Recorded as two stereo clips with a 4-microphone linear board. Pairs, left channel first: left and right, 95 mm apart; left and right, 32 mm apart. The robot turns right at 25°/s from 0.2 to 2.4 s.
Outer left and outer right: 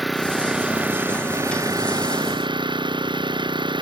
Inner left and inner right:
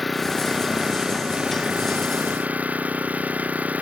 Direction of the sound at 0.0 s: Straight behind.